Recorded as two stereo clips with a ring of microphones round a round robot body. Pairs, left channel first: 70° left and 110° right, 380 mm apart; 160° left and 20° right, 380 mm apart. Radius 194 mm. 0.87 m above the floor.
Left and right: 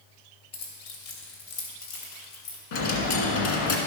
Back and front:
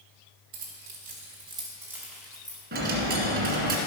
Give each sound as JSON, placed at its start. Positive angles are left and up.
{"t": 0.5, "sound": "keys jangling", "azimuth_deg": 35, "distance_m": 2.5}
{"t": 2.7, "sound": "a dropped coin", "azimuth_deg": 45, "distance_m": 1.9}